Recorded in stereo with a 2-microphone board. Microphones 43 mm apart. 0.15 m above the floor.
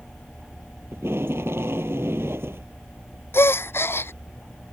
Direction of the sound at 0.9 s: 75° right (ahead or behind).